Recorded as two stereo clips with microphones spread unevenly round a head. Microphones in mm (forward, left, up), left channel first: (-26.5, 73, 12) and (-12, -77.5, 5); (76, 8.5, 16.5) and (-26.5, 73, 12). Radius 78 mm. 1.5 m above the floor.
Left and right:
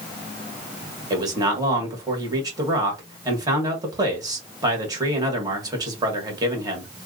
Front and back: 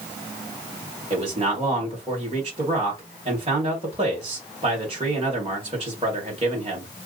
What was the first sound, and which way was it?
A man speaking, 150° right.